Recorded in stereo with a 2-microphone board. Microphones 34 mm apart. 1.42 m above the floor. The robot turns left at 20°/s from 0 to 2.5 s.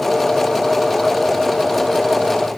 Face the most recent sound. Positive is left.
No sound to turn to.